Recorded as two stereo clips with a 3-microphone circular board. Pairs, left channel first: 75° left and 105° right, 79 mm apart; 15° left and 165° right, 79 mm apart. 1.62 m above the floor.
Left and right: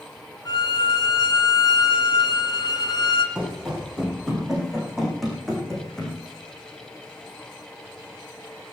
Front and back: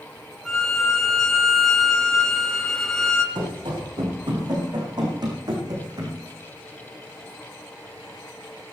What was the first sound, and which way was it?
A violin, 100° left.